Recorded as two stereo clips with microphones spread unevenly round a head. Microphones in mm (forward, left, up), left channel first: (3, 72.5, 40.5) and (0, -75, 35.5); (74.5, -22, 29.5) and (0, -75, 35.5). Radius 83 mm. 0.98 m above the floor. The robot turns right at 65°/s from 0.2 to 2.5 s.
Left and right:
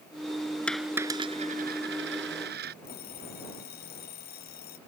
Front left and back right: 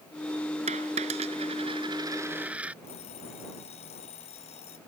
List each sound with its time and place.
0.7 s a dropped coin: 170° left; by 2.7 s 70° right
2.8 s an alarm clock: 65° left